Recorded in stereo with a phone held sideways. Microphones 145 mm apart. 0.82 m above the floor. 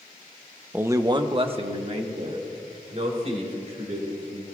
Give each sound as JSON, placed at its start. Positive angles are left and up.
{"t": 0.7, "sound": "a man speaking", "side_deg": -10, "distance_m": 0.6}